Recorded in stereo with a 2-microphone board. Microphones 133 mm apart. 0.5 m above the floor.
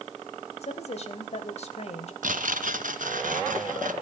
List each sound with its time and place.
0.6 s a woman speaking: 55° left (ahead or behind), 2.5 m
2.2 s tearing paper: 85° right, 1.8 m